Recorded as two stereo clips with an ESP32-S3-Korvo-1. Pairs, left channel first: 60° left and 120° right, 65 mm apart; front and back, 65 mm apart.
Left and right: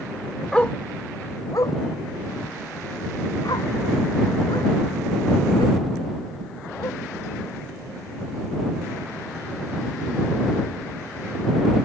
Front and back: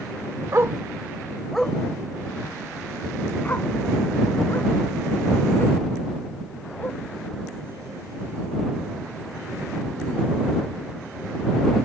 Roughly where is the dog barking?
Behind left.